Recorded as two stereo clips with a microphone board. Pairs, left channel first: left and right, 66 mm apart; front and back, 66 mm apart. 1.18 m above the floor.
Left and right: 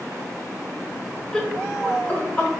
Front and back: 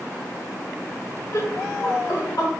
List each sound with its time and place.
1.3 s laughter: 10° left, 0.7 m; by 2.5 s 25° left, 2 m